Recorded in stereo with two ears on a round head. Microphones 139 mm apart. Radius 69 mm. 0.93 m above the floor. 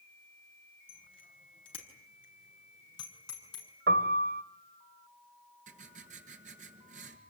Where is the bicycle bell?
35° left (ahead or behind), 6 m; by 3.7 s 30° left (ahead or behind), 8 m.